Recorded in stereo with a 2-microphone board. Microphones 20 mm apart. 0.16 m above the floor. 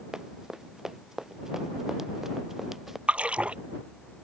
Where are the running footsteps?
35° right (ahead or behind); by 3.0 s 15° right (ahead or behind).